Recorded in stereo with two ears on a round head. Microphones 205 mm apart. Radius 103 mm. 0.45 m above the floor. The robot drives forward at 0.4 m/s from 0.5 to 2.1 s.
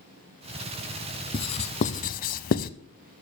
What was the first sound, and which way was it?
Writing, 25° left (ahead or behind).